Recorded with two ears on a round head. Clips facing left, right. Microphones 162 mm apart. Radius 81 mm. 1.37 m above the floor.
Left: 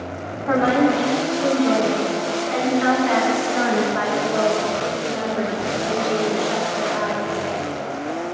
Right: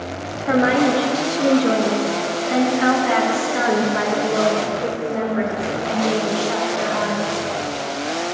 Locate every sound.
0.5 s a woman speaking: 25° right (ahead or behind), 1.7 m; by 7.4 s 65° right (ahead or behind), 6.5 m